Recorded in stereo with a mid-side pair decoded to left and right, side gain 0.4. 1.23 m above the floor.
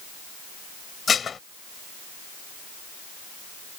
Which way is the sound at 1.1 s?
50° left.